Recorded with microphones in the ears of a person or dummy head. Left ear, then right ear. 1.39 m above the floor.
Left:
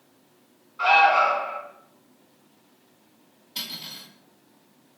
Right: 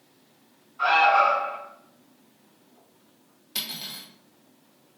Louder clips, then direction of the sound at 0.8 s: Left 1 dB; 15° left (ahead or behind).